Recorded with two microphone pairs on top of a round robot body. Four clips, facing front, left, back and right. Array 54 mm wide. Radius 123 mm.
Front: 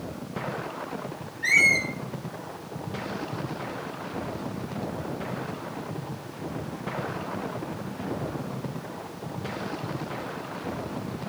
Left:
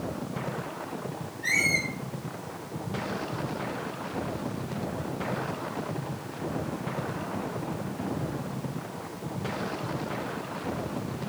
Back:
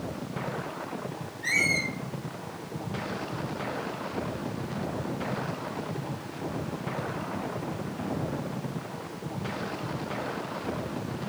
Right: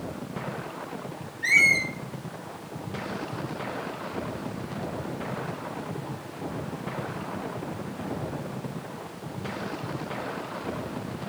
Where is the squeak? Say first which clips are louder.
Right 6 dB, front 6 dB; 45° right, 3 m.